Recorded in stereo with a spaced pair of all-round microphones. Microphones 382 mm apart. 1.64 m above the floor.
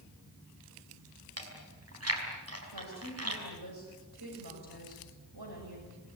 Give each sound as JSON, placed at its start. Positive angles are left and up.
{"t": 1.4, "sound": "chewing", "side_deg": -40, "distance_m": 5.0}
{"t": 2.7, "sound": "a woman speaking", "side_deg": -75, "distance_m": 7.0}